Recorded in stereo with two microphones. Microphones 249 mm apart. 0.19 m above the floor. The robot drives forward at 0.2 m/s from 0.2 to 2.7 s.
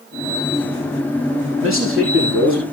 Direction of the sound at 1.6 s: 60° right (ahead or behind).